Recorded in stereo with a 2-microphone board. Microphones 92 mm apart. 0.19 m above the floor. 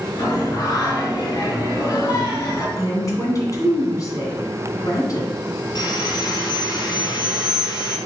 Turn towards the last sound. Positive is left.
turn(degrees=50)  # may be behind; listen again after turning